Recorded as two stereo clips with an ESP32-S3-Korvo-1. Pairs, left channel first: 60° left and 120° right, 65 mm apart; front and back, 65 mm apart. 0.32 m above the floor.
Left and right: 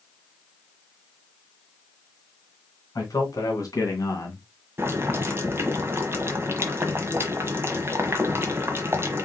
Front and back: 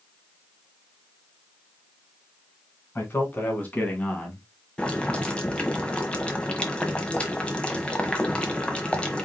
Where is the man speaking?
50° left, 3 m; by 4.5 s 75° left, 2 m.